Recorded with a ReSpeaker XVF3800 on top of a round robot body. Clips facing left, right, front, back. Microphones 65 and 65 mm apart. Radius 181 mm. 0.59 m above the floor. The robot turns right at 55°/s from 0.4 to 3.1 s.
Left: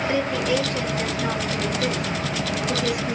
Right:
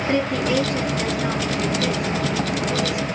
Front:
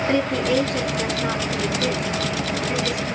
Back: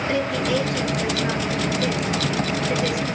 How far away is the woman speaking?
About 2.5 m.